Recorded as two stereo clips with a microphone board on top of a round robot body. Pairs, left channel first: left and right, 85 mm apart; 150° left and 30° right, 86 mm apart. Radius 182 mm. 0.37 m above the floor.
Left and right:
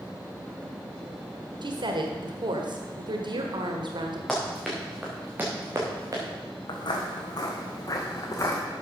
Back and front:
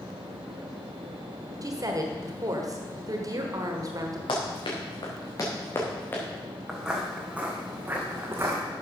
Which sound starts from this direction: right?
A woman speaking, at 1.6 s.